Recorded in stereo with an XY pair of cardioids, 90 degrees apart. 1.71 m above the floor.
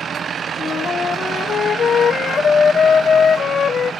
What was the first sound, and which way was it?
A flute, 60° left.